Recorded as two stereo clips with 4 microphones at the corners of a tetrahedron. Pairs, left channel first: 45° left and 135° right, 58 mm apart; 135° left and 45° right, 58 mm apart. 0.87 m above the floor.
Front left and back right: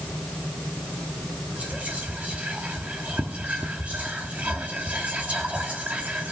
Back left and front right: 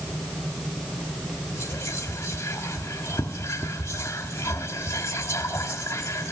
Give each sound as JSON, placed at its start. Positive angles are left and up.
{"t": 1.6, "sound": "whispering", "azimuth_deg": 160, "distance_m": 1.5}